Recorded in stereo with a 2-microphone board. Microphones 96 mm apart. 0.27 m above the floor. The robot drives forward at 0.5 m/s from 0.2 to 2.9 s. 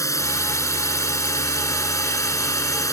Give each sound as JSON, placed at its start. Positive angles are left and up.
{"t": 0.0, "sound": "a drone", "side_deg": 35}